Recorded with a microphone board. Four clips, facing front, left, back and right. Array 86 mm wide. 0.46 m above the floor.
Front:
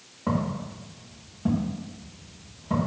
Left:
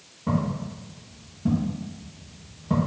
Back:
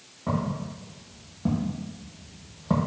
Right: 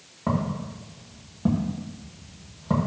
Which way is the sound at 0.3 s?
80° right.